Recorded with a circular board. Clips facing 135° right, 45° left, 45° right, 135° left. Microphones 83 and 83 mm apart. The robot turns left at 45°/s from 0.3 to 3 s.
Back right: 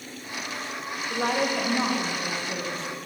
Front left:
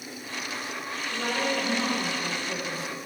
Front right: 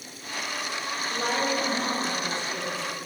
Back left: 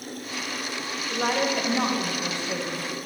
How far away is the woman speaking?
About 1.6 m.